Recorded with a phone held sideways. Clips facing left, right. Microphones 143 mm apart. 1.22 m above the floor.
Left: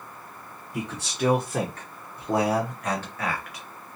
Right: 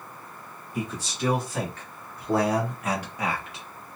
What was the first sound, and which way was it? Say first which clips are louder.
A man speaking: left 1 dB; 70° left (ahead or behind).